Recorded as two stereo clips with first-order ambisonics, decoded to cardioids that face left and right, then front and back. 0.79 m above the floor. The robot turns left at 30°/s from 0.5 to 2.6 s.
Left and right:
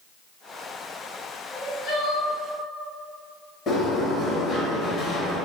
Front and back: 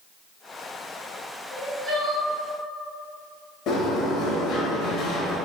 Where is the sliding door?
35° left, 0.8 m.